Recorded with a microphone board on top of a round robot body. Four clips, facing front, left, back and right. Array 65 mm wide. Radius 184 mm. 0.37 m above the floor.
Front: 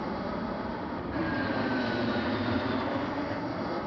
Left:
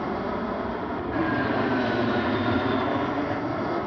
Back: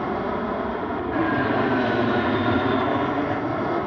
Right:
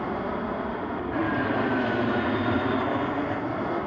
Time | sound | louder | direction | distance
0.0 | an aircraft | left 1 dB, back 8 dB | 175° left | ?